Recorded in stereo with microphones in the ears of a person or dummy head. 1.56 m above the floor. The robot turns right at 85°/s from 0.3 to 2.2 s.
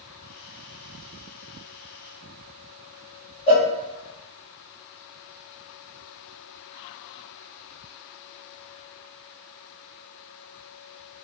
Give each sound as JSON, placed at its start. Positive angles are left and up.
{"t": 3.5, "sound": "a cowbell", "side_deg": 35, "distance_m": 1.3}